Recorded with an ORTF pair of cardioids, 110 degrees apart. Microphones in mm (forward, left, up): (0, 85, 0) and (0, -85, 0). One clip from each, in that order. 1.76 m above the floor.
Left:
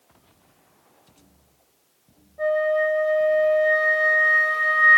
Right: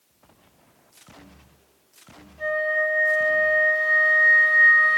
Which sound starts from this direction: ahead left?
A flute, at 2.4 s.